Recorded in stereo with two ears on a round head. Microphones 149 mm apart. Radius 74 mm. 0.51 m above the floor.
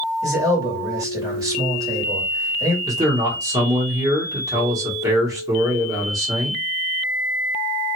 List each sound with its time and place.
0.2 s a man speaking: 20° right (ahead or behind), 2 m
2.9 s a man speaking: 20° right (ahead or behind), 1.1 m